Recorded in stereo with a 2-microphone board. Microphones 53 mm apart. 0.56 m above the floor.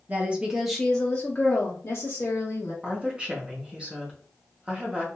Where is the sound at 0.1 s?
30° right (ahead or behind), 0.7 m; by 2.7 s 60° left (ahead or behind), 1.2 m.